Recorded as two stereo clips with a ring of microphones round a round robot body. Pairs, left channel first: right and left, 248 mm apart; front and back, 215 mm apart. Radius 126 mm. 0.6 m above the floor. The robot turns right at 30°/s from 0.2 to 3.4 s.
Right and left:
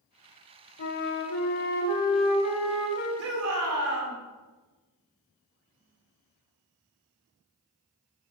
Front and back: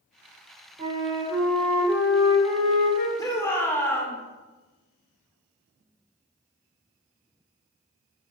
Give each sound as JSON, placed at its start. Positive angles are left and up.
{"t": 0.8, "sound": "a flute", "azimuth_deg": -115, "distance_m": 1.3}
{"t": 3.2, "sound": "a shout", "azimuth_deg": 70, "distance_m": 2.0}